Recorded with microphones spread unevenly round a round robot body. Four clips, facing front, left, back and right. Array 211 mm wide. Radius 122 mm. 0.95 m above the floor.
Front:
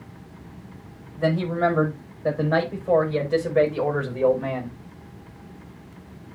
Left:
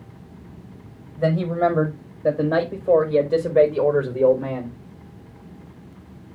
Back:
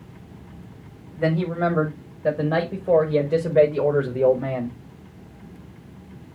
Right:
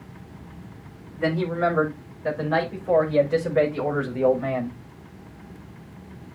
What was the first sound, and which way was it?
A man speaking, 130° left.